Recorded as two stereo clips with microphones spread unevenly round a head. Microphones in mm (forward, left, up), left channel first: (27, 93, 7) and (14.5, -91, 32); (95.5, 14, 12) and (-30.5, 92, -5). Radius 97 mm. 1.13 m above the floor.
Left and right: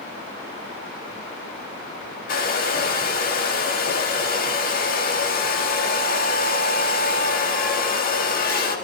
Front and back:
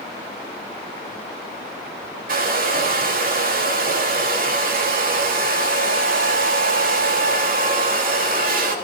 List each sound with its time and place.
2.3 s a hair dryer: 130° left, 3.5 m